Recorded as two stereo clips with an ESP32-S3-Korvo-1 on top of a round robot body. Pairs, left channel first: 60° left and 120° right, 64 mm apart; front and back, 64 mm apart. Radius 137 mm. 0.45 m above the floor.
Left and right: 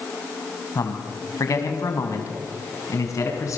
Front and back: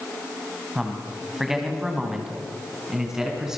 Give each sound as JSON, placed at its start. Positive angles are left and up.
{"t": 0.8, "sound": "a man speaking", "azimuth_deg": 95, "distance_m": 3.5}